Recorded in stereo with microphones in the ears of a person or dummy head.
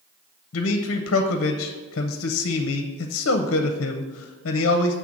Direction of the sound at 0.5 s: 60° left (ahead or behind).